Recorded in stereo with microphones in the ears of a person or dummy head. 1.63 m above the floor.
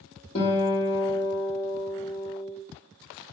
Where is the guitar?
40° left (ahead or behind), 1.4 m.